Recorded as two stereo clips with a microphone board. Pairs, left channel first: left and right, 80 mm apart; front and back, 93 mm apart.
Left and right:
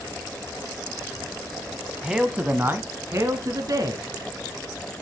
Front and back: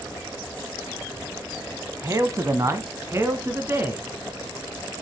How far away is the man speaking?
About 1.1 m.